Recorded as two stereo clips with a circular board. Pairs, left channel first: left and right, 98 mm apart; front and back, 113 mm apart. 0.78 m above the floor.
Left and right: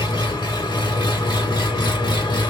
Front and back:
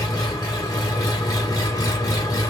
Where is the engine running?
55° left, 1.4 m.